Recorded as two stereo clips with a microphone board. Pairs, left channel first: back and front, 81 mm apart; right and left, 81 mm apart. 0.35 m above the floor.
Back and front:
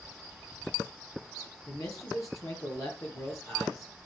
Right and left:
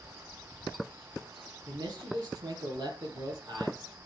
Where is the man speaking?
135° left, 6 m.